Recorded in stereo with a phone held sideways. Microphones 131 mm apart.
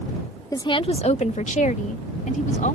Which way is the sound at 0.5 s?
25° left (ahead or behind).